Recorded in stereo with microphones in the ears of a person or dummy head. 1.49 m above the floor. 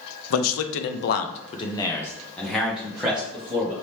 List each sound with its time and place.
0.3 s a man speaking: 85° left, 0.6 m; by 3.7 s 10° right (ahead or behind), 1.5 m